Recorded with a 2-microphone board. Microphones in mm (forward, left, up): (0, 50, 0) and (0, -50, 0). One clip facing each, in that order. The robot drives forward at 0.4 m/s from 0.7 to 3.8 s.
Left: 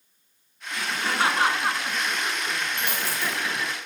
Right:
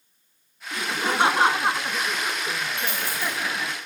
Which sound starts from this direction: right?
Laughter, at 0.7 s.